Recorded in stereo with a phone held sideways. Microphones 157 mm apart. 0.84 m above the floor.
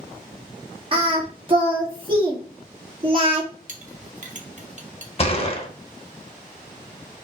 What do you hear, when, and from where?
0.9 s singing: 35° right (ahead or behind), 1.2 m
3.7 s a clink: 50° right (ahead or behind), 0.8 m
5.2 s a gunshot: 40° left (ahead or behind), 0.7 m